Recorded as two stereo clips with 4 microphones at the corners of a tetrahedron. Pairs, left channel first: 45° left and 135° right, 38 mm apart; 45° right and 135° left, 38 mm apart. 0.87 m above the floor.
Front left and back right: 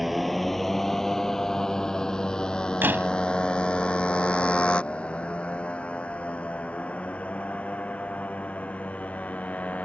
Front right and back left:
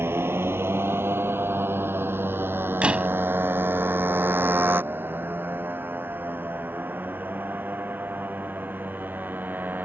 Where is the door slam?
165° right.